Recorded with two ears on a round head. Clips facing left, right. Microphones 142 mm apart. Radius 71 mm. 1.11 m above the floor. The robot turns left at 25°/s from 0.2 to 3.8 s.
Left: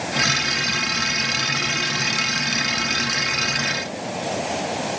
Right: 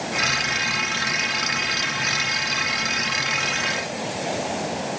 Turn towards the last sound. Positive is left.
No sound to turn to.